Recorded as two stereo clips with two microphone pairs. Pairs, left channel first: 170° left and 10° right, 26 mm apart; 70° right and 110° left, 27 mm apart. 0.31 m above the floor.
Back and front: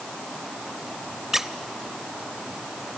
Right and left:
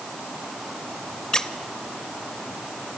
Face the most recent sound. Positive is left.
turn(degrees=-65)